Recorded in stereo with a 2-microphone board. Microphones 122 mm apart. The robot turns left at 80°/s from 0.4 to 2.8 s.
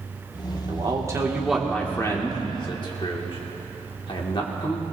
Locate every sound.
0.7 s a man speaking: 40° right (ahead or behind), 1.7 m; by 4.8 s 45° left (ahead or behind), 1.7 m